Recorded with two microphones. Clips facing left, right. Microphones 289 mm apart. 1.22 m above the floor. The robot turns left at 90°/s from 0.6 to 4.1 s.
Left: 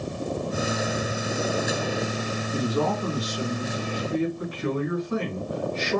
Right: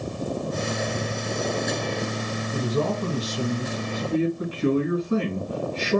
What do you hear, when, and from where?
2.5 s a man speaking: 10° right, 2 m; by 6.0 s 155° right, 2 m